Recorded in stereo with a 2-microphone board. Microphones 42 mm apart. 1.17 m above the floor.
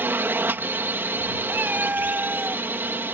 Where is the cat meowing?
50° right (ahead or behind).